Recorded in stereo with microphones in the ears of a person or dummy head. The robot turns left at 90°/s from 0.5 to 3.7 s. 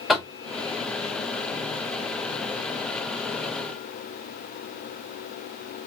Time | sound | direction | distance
0.1 | knocking | 10° left (ahead or behind) | 0.6 m